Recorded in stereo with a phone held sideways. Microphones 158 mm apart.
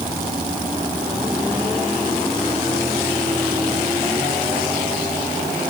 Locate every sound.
Only background noise.